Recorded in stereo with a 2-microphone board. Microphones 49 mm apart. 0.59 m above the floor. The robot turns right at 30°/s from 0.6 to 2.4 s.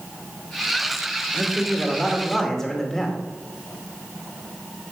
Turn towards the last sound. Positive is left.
turn(degrees=10)